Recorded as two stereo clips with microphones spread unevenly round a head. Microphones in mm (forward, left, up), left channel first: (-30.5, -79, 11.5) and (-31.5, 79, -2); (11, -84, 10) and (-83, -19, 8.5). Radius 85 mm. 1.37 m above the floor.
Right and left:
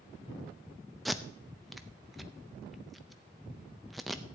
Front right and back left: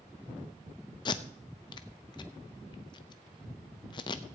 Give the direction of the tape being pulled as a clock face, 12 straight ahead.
12 o'clock.